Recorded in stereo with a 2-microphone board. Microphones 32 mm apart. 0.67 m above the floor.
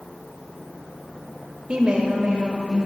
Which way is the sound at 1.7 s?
30° right (ahead or behind).